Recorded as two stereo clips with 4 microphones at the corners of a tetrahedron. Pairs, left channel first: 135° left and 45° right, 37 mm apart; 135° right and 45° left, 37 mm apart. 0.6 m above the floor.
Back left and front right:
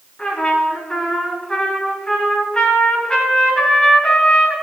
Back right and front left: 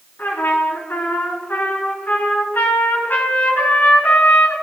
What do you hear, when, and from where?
0.2 s a trumpet: 160° right, 4.5 m